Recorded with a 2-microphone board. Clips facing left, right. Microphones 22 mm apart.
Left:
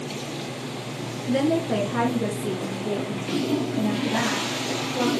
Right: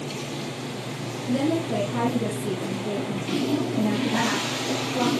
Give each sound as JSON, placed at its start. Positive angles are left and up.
{"t": 1.3, "sound": "a woman speaking", "side_deg": 40, "distance_m": 2.5}